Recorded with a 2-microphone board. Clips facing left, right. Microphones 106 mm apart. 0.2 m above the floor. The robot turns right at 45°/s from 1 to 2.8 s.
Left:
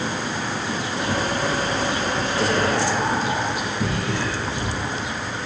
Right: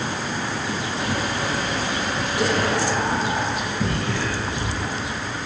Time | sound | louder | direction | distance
2.4 | whispering | even | 15° right (ahead or behind) | 6 m